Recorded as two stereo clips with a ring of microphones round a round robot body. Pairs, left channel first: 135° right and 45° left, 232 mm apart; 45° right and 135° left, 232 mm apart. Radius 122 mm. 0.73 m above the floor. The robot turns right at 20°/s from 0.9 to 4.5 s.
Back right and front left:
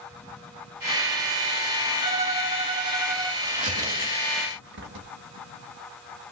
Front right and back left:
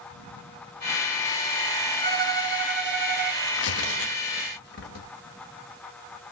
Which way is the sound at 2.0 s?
95° left.